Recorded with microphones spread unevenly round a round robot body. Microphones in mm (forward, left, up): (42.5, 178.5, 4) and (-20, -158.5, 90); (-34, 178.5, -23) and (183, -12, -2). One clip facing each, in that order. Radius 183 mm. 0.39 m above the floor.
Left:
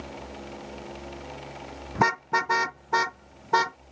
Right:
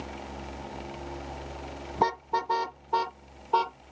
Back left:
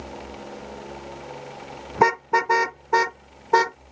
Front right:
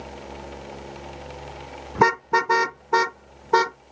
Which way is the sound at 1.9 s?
30° left.